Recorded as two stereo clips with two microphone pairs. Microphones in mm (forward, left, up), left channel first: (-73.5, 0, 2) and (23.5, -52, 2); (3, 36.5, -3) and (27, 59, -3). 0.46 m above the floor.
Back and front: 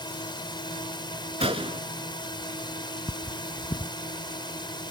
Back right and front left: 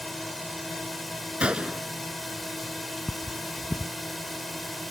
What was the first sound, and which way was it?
A drone, 135° left.